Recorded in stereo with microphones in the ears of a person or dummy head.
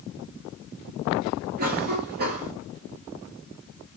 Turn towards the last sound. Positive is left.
turn(degrees=-45)  # may be behind; listen again after turning